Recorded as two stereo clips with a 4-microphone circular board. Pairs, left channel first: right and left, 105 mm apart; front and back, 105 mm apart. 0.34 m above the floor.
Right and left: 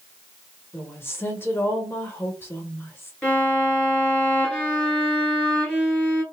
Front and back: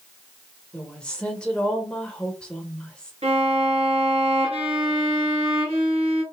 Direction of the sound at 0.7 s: 70° right.